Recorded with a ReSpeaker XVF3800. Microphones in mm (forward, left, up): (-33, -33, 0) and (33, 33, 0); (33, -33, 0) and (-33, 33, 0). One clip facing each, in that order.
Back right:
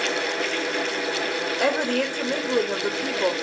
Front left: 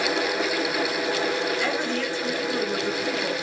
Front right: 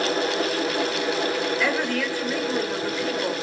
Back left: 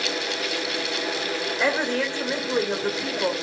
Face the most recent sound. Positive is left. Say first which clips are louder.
# back right 3 dB, back left 1 dB
turn(degrees=-160)